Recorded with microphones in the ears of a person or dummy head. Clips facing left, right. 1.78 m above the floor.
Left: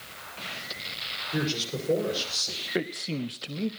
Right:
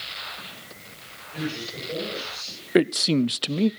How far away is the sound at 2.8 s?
About 0.5 m.